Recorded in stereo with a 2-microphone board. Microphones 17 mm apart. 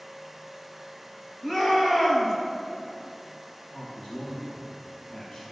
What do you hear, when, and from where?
1.4 s a shout: 45° left (ahead or behind), 2.5 m
3.7 s a man speaking: 65° left (ahead or behind), 3 m